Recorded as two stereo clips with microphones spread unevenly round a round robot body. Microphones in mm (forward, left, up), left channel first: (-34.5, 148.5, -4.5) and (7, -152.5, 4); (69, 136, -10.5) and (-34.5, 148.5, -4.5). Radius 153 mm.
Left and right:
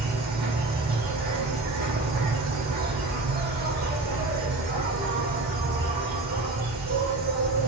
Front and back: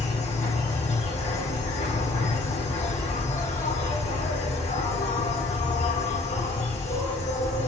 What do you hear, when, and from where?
0.0 s an insect: 20° right, 3.5 m